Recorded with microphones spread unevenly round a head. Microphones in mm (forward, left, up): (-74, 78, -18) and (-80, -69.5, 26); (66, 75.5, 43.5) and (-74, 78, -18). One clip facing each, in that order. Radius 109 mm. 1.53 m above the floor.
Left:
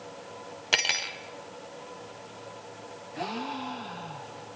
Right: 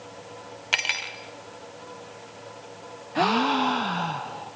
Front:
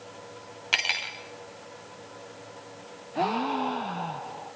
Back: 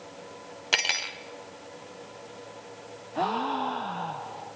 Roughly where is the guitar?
I don't hear a guitar.